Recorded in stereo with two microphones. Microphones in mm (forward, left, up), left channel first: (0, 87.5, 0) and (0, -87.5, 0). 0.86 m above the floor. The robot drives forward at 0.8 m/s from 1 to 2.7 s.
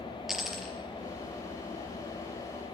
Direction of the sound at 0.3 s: Centre (ahead or behind).